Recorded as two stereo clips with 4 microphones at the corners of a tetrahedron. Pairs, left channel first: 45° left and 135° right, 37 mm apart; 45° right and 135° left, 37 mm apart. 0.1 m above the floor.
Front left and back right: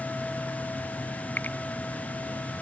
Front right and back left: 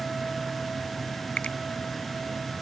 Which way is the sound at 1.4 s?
10° left.